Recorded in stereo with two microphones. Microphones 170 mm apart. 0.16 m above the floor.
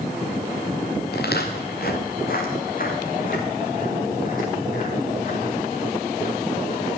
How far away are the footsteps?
About 3 m.